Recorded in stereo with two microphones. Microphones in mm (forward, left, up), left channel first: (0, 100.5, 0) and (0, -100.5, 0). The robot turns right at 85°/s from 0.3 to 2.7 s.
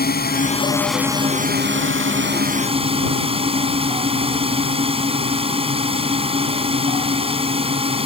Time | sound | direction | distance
0.0 | a drone | 125° left | ?